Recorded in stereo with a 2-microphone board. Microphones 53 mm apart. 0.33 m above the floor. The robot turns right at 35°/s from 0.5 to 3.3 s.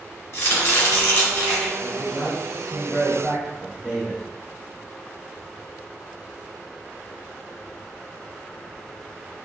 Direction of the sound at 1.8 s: 20° left (ahead or behind).